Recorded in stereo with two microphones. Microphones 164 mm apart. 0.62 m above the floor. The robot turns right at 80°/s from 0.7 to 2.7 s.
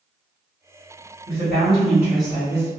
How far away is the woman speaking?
About 1.6 m.